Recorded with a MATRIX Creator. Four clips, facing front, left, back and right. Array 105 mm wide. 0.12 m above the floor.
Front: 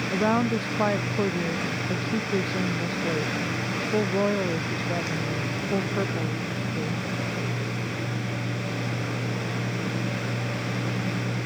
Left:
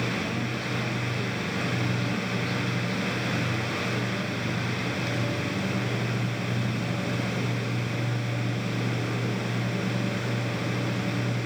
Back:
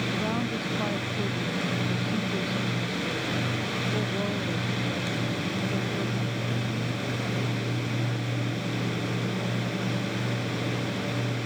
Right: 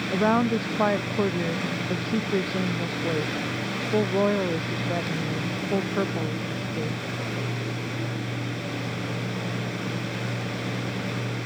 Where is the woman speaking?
60° right.